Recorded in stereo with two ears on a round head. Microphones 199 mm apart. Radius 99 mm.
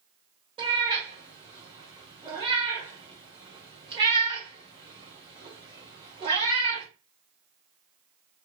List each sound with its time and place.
0.6 s a cat meowing: 20° right (ahead or behind), 1.2 m